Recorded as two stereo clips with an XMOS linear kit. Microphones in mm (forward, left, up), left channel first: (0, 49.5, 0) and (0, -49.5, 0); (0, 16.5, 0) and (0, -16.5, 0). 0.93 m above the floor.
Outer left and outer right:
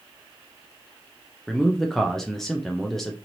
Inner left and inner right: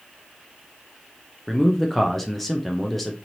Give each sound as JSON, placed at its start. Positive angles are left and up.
{"t": 1.5, "sound": "a man speaking", "side_deg": 5, "distance_m": 0.5}